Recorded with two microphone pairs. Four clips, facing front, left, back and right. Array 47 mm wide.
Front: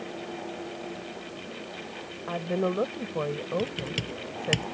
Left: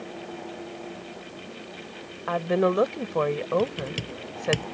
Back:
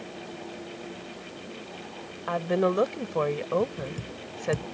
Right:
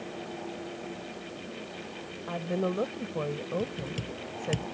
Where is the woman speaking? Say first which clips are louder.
Left 8 dB, back 3 dB; 115° left.